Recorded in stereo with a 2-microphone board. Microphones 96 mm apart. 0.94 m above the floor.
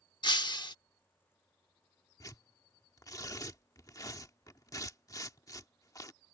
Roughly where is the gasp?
No gasp in this recording.